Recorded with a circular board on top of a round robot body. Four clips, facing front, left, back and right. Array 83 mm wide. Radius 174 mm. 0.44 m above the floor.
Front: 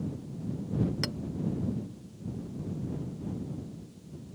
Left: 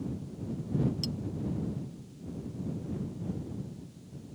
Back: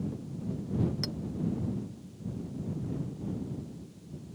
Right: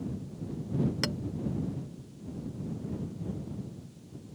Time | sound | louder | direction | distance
1.0 | a clink | right 3 dB, front 2 dB | 70° right | ?